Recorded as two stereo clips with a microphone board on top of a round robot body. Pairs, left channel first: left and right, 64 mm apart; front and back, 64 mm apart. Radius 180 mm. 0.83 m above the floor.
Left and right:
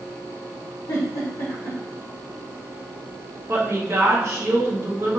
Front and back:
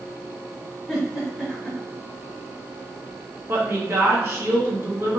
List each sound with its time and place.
0.9 s a giggle: 95° left, 0.8 m
3.5 s a woman speaking: 135° right, 1.4 m